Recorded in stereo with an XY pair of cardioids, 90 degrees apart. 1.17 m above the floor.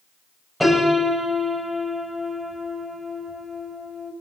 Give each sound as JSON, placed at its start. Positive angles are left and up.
{"t": 0.6, "sound": "a piano", "azimuth_deg": 0, "distance_m": 7.5}